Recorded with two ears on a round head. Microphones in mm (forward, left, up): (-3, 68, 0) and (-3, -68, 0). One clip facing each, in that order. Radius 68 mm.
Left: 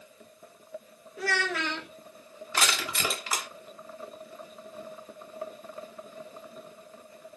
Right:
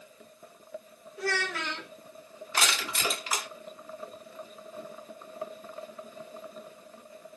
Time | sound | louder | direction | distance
1.2 | a child speaking | left 2 dB | 60° left (ahead or behind) | 1.1 m
2.5 | crushing | left 1 dB | 85° left | 2.5 m